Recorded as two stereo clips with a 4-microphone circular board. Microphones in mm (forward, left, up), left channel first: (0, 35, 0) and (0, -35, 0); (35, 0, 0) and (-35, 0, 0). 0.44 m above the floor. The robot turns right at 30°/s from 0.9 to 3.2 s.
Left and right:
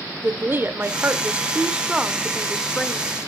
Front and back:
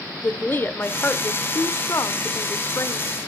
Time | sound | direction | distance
0.2 | a woman speaking | 45° right | 1.0 m